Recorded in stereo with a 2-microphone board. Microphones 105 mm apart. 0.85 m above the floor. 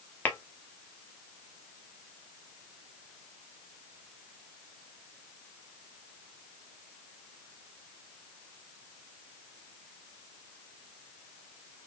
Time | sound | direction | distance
0.2 | tapping | 20° left (ahead or behind) | 0.8 m